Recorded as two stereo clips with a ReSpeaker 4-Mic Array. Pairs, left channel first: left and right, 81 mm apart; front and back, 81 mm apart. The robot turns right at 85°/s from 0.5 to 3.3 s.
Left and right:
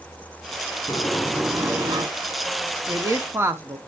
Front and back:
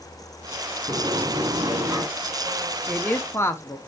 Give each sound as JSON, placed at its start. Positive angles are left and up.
{"t": 0.9, "sound": "a sliding door", "azimuth_deg": 140, "distance_m": 3.0}
{"t": 2.9, "sound": "a man speaking", "azimuth_deg": -80, "distance_m": 0.9}